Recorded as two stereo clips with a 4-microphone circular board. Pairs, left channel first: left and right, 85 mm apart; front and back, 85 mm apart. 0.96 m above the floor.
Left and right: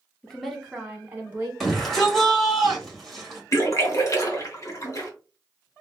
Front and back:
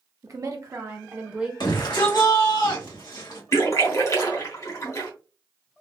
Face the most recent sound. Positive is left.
turn(degrees=45)